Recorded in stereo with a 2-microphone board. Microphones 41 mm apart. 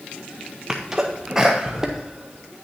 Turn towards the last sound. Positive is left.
turn(degrees=-15)  # may be behind; listen again after turning